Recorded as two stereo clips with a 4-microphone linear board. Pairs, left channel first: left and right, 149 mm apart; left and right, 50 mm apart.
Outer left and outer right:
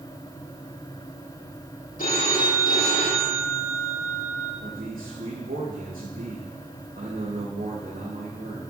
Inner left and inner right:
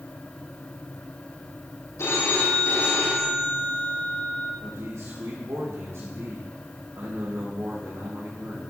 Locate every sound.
2.0 s a phone ringing: 70° left (ahead or behind), 4.5 m
4.6 s a man speaking: 75° right (ahead or behind), 4.5 m